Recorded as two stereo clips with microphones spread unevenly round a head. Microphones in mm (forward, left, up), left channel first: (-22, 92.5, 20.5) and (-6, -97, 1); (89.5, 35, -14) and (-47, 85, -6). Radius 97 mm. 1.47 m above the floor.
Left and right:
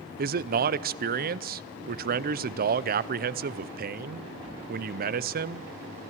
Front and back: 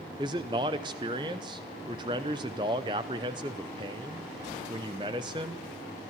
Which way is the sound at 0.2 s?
130° right.